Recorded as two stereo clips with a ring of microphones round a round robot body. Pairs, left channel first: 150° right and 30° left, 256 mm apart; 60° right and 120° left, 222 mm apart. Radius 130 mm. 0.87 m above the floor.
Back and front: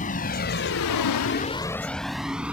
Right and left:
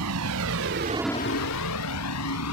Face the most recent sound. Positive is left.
turn(degrees=-55)